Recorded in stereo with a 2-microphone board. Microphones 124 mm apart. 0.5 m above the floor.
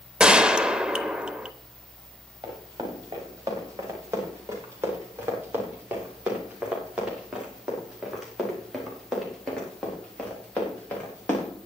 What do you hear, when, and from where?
0.2 s a gunshot: 10° right (ahead or behind), 0.7 m
2.4 s running footsteps: 30° right (ahead or behind), 6.5 m; by 11.5 s 15° left (ahead or behind), 6 m